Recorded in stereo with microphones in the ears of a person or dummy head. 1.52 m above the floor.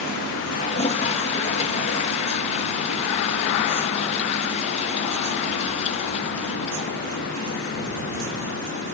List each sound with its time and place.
0.6 s a toilet flushing: 35° left (ahead or behind)